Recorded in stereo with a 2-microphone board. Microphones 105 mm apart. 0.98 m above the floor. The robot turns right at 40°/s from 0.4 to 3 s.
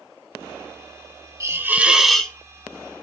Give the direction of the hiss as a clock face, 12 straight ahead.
1 o'clock.